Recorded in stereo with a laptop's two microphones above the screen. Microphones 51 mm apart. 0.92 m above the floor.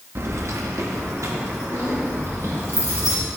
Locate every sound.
0.1 s keys jangling: 55° right (ahead or behind), 0.7 m; by 3.1 s 65° right (ahead or behind), 3 m